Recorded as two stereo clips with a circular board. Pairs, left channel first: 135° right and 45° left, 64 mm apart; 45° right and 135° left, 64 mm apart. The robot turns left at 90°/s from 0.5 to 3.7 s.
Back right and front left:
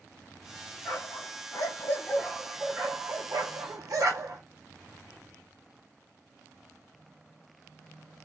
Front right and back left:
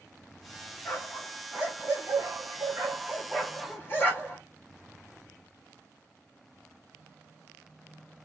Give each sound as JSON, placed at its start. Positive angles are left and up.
{"t": 0.8, "sound": "a dog barking", "azimuth_deg": -90, "distance_m": 1.9}